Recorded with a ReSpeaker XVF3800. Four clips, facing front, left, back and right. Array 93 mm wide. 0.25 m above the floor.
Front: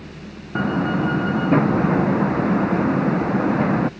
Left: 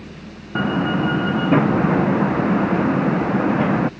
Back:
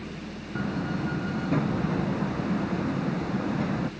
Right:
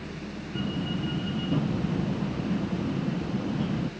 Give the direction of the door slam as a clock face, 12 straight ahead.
10 o'clock.